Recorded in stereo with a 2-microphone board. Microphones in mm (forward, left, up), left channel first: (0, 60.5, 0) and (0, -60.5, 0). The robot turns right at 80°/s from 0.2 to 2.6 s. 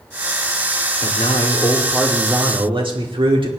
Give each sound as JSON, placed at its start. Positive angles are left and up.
{"t": 1.0, "sound": "a man speaking", "azimuth_deg": 100, "distance_m": 2.0}